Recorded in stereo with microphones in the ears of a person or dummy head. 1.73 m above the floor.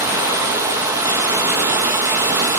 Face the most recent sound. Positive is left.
turn(degrees=-10)  # may be behind; listen again after turning